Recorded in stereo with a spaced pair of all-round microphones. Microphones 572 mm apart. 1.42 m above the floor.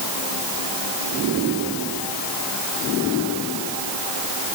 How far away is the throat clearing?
No throat clearing in this recording.